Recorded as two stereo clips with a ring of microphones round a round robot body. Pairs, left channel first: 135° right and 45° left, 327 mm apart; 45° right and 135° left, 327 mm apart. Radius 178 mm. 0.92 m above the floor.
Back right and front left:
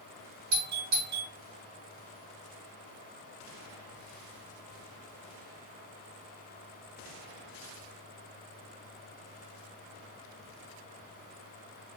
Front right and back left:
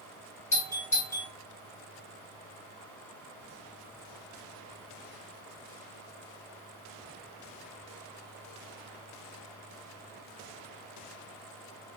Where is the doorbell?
35° left, 2 m.